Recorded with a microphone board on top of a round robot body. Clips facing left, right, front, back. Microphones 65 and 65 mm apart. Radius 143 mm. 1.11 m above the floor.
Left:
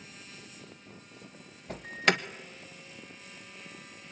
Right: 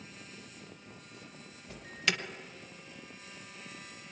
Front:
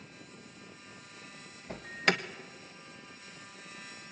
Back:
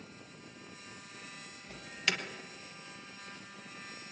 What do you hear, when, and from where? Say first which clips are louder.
1.7 s an alarm: left 7 dB, front 6 dB; 45° left, 1.5 m